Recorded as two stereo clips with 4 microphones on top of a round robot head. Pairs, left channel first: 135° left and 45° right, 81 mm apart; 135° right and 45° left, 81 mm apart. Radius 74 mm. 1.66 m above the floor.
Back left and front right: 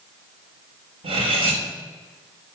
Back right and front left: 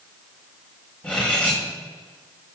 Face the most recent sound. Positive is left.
turn(degrees=-60)